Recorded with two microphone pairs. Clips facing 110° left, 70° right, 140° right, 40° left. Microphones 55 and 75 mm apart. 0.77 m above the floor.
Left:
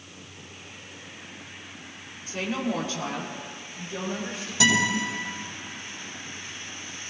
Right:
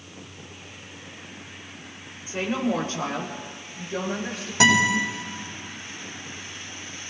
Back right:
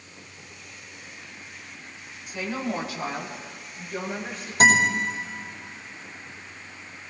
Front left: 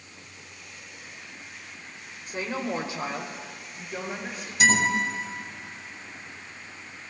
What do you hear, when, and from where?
2.3 s a woman speaking: straight ahead, 2.5 m; by 4.5 s 45° right, 5 m
4.6 s a guitar: 100° right, 5 m